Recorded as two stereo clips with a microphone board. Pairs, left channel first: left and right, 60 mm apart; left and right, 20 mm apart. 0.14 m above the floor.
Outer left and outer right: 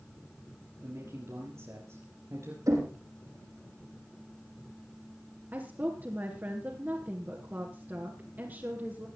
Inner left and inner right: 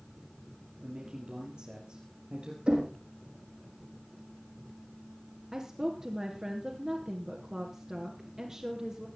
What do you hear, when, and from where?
0.8 s a man speaking: 55° right (ahead or behind), 3.5 m
2.7 s knocking: 75° right (ahead or behind), 5 m
5.5 s a woman speaking: 40° right (ahead or behind), 2 m